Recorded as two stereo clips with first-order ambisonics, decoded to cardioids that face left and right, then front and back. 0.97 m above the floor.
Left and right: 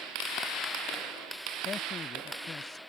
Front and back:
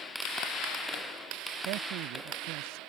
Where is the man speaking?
160° left.